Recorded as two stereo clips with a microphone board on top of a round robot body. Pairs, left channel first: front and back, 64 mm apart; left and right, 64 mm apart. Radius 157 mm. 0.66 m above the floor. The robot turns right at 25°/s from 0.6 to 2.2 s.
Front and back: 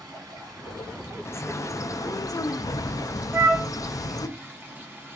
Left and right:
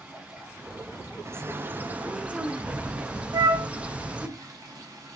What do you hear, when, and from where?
0.0 s running water: 160° right, 1.4 m; by 5.2 s 120° right, 1.4 m
1.2 s a bird: 45° right, 0.6 m; by 4.3 s 20° right, 0.6 m
3.3 s a flute: 125° right, 0.6 m